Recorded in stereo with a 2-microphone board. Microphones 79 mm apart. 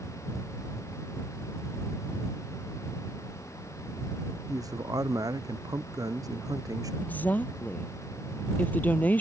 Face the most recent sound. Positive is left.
turn(degrees=20)  # may be behind; listen again after turning